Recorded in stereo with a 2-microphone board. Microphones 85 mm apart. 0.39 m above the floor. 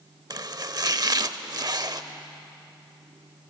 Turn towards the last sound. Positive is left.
turn(degrees=-50)  # may be behind; listen again after turning